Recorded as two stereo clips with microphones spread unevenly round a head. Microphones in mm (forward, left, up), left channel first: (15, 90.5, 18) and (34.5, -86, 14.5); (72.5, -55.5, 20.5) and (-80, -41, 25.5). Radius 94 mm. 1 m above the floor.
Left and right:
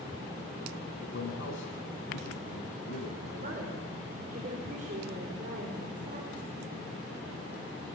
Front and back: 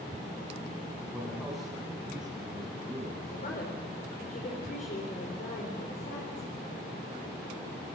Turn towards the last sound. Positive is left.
turn(degrees=-40)